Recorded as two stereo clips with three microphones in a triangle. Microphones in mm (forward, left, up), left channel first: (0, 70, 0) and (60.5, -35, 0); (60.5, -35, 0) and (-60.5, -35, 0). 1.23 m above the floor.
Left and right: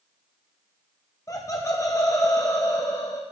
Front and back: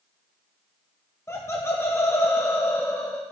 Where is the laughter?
60° left, 0.9 m.